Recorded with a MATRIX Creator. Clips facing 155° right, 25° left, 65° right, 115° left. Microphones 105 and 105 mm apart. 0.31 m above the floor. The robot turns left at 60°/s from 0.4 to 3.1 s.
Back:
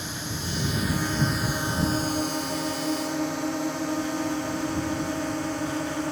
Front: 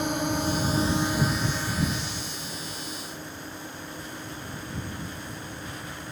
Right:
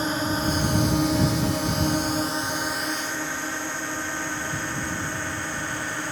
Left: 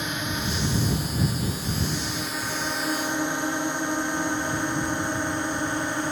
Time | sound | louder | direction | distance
0.0 | a drone | front 8 dB, right 5 dB | 10° right | ?